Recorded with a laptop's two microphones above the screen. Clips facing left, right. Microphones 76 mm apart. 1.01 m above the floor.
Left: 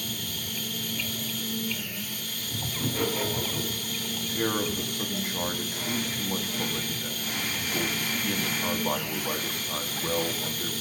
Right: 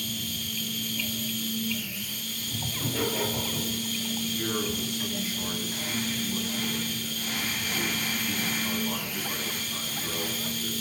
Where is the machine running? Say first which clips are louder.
Right 1 dB; 50° left (ahead or behind), 2 m.